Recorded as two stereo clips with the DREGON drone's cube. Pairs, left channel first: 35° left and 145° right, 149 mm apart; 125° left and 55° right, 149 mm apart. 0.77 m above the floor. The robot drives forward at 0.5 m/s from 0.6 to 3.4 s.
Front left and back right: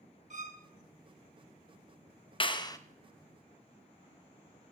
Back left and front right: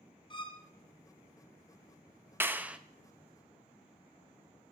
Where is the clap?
10° left, 0.7 m; by 2.8 s 20° left, 0.6 m.